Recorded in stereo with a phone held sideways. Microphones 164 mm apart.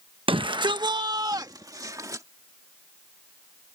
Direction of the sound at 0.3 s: 30° right (ahead or behind).